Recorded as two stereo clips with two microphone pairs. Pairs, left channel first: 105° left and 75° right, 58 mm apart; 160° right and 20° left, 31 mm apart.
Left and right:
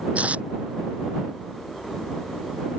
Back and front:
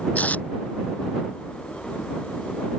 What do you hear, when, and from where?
0.1 s tape being pulled: 135° right